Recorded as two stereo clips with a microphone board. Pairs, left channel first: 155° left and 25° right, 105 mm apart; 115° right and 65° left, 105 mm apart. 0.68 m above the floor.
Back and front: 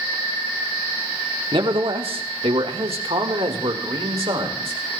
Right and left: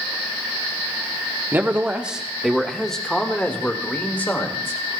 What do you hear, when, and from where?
1.5 s a man speaking: straight ahead, 1.2 m; by 5.0 s 45° right, 2.5 m